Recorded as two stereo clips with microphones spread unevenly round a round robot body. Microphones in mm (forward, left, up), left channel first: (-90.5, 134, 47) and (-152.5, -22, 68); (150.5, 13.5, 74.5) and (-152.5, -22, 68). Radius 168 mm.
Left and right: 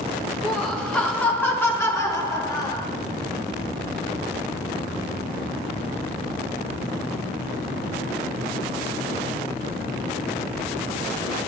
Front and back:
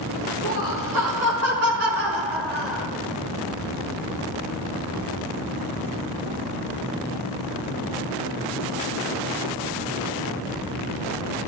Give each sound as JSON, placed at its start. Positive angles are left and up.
{"t": 0.4, "sound": "laughter", "azimuth_deg": 155, "distance_m": 5.0}